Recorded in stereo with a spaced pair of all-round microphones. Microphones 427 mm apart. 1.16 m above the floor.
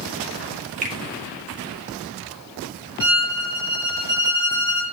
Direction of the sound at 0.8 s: 20° right (ahead or behind).